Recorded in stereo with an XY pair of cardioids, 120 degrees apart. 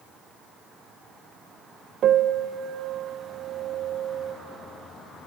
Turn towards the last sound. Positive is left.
turn(degrees=-55)